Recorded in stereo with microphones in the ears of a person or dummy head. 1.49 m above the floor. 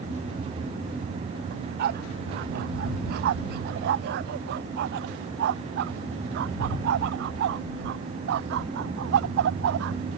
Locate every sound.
1.5 s a dog barking: 60° right (ahead or behind); by 10.0 s 70° right (ahead or behind)